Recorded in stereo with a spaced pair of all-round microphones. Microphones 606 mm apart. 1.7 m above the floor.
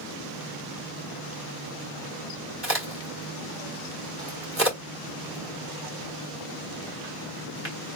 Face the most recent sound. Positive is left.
turn(degrees=-20)  # may be behind; listen again after turning